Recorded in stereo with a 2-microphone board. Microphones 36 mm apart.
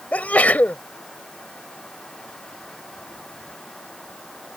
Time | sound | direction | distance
0.1 | a sneeze | 55° left (ahead or behind) | ?